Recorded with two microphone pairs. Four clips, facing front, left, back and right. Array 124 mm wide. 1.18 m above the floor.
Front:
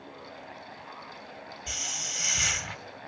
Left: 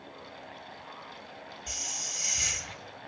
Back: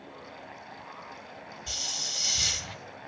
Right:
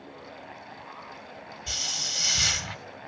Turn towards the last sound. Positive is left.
turn(degrees=-50)